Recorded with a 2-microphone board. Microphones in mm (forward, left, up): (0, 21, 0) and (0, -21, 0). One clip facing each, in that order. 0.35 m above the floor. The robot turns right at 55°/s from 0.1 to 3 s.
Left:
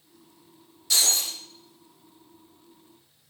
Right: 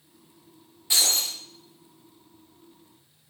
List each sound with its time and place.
0.9 s breaking glass: 20° right (ahead or behind), 5.5 m; by 1.4 s 45° right (ahead or behind), 5.5 m